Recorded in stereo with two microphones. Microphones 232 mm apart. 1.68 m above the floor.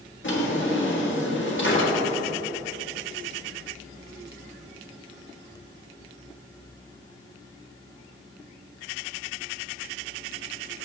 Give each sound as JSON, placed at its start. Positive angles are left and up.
{"t": 0.2, "sound": "a drawer", "side_deg": 55, "distance_m": 1.6}